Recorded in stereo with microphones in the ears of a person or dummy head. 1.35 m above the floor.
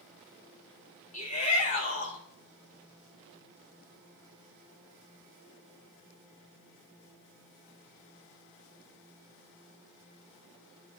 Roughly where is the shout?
Left.